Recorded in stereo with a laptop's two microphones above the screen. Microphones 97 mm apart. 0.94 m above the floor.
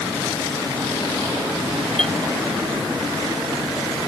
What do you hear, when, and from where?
2.0 s a clink: 5° left (ahead or behind)